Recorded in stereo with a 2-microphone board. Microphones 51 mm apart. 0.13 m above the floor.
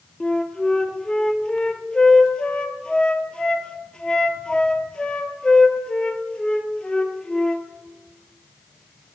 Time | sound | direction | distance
0.2 | a flute | 20° left (ahead or behind) | 0.5 m